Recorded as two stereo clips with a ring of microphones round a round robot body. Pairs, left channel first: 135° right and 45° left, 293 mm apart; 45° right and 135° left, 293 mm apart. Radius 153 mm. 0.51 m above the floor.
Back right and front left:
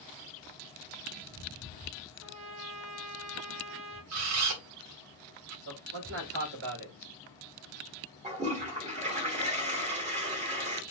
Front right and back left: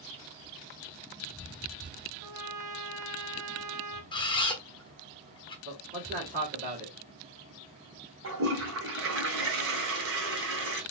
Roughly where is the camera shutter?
Ahead left.